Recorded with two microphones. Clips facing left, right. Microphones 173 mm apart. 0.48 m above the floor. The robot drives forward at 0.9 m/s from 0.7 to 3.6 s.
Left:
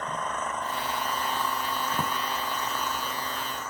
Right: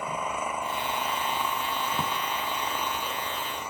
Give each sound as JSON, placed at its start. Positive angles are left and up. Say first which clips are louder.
{"t": 0.0, "sound": "an engine running", "louder": "right 1 dB", "side_deg": -10}
{"t": 1.9, "sound": "a drawer", "louder": "even", "side_deg": 10}